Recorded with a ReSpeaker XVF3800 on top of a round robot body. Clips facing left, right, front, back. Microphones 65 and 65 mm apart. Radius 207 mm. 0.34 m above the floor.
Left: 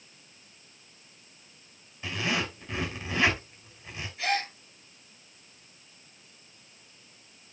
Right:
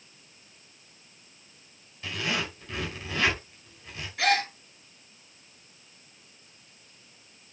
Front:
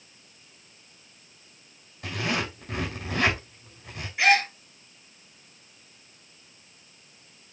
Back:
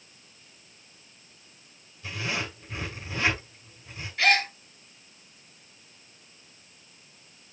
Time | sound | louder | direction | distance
2.0 | a zipper | left 1 dB, front 3 dB | 15° left | 5.5 m
4.2 | a gasp | right 5 dB, front 2 dB | 75° right | 2.0 m